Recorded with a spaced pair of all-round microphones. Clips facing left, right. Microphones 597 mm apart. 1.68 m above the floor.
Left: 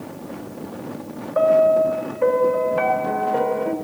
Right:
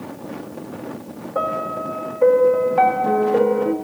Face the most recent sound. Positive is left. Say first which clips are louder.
# left 10 dB
turn(degrees=-60)  # may be behind; listen again after turning